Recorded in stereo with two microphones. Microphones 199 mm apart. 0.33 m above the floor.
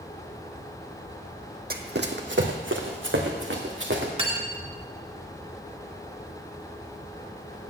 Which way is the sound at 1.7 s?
50° right (ahead or behind).